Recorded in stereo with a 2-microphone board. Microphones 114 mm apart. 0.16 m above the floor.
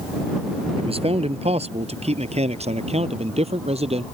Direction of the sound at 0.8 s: 60° right (ahead or behind).